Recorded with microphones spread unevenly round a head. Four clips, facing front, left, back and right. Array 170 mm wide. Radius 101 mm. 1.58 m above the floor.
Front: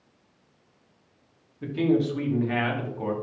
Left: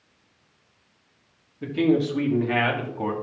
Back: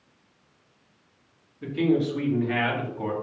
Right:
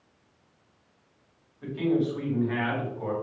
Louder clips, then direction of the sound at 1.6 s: Left 4 dB, even; 70° left.